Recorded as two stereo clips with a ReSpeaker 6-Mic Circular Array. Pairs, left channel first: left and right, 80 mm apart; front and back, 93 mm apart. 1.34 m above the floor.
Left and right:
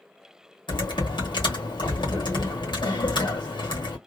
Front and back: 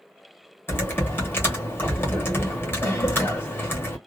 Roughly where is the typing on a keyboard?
Ahead left.